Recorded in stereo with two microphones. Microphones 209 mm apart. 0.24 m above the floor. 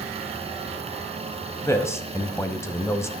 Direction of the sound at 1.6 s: 15° left (ahead or behind).